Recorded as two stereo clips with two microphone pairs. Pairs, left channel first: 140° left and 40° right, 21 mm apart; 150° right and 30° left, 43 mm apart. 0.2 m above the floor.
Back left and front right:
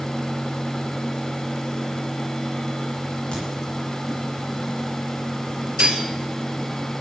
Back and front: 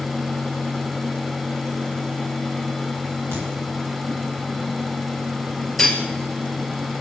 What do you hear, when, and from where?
3.3 s a crack: 175° right, 10 m
5.8 s cutlery clinking: 75° right, 2 m